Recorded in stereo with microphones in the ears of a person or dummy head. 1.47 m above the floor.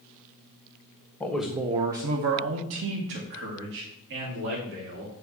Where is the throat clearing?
I don't hear throat clearing.